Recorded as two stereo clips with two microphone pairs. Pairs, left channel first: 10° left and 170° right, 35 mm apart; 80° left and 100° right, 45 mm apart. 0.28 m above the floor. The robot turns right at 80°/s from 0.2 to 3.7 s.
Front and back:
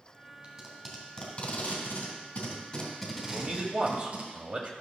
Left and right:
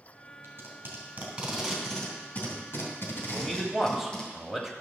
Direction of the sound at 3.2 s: 145° left.